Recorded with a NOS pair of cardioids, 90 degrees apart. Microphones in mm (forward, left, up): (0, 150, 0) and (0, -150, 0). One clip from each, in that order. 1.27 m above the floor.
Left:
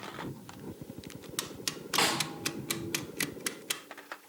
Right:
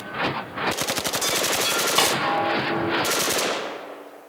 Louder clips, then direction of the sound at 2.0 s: Right 6 dB; 50° right.